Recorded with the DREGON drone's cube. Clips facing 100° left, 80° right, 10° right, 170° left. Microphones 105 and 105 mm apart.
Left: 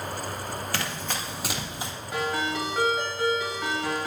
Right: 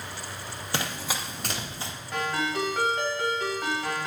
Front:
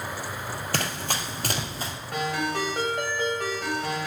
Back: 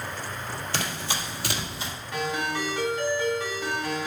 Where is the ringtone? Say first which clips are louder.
Even, front 1 dB; 15° left, 3 m.